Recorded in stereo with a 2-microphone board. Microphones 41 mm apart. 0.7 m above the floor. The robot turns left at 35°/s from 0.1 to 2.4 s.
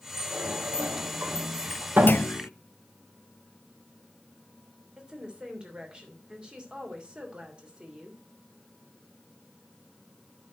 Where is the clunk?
50° left (ahead or behind), 0.6 m; by 2.5 s 60° left (ahead or behind), 0.6 m.